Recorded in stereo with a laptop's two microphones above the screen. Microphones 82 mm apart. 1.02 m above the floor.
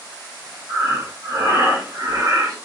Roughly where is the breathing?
Right.